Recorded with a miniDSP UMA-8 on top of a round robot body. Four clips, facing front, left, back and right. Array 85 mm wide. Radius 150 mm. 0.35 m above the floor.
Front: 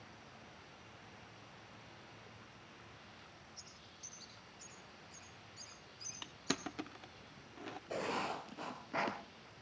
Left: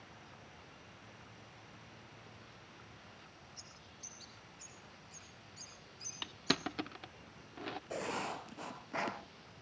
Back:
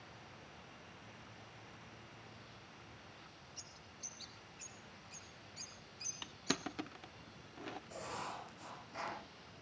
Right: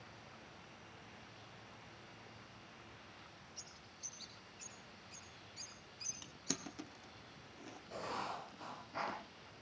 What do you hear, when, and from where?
3.6 s a bird: 155° right, 6.5 m
6.2 s crushing: 90° left, 0.8 m
7.9 s writing: 45° left, 2 m